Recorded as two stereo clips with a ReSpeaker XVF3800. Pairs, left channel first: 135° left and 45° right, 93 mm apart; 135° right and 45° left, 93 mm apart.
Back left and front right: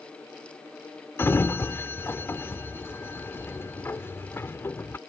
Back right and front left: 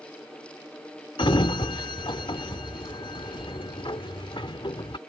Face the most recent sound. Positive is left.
turn(degrees=-160)